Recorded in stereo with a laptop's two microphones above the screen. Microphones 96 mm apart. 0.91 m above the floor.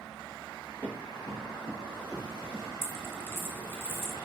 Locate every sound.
0.8 s running footsteps: 15° left (ahead or behind), 1.4 m; by 2.6 s 35° left (ahead or behind), 3 m
2.8 s a dropped coin: 20° left (ahead or behind), 0.7 m